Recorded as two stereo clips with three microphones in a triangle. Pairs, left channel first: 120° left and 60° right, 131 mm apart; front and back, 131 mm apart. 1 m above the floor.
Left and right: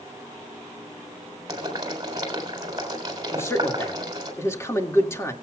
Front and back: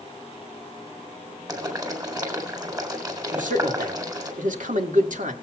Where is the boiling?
120° right, 3.5 m.